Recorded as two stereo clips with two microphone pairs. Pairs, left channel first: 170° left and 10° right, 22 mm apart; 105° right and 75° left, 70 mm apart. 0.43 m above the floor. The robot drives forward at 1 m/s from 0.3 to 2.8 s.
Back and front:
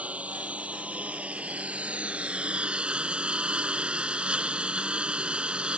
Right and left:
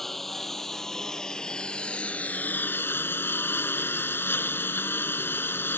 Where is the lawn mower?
15° right; by 5.8 s 45° right.